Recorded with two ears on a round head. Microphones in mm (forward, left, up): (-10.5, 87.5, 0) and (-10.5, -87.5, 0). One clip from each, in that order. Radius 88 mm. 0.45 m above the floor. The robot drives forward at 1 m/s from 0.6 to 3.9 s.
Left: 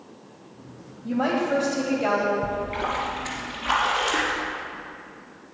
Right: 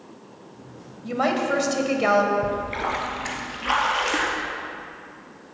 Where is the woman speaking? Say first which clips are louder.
Right 1 dB; 55° right (ahead or behind), 2.5 m; by 2.3 s 60° right (ahead or behind), 2 m.